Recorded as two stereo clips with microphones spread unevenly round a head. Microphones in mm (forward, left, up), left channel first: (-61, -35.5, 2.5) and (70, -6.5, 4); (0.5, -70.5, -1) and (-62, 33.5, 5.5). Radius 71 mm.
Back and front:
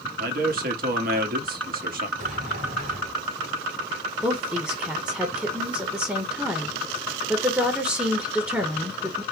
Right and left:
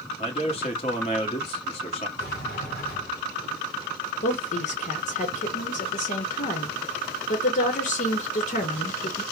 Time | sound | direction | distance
0.2 | a man speaking | 10° right | 1.3 m
2.2 | a sliding door | 20° right | 2 m
4.2 | a woman speaking | 65° right | 1.0 m